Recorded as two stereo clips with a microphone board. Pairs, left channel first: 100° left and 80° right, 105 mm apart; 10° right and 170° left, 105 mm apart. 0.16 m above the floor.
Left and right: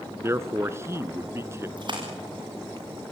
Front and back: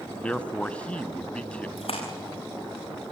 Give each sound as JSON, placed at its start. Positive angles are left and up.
{"t": 0.2, "sound": "a man speaking", "azimuth_deg": -75, "distance_m": 1.1}
{"t": 1.8, "sound": "a splash", "azimuth_deg": -35, "distance_m": 8.0}